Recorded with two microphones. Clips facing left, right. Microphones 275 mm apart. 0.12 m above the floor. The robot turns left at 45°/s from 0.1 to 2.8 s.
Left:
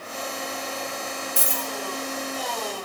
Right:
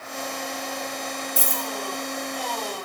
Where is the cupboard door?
I don't hear a cupboard door.